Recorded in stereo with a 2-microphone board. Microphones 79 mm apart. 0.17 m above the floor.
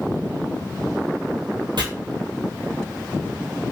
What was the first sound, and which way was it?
Chopping, 70° right (ahead or behind).